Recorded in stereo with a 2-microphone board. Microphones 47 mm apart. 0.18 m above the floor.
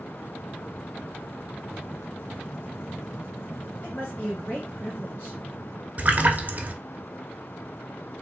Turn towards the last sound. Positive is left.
turn(degrees=-35)  # may be behind; listen again after turning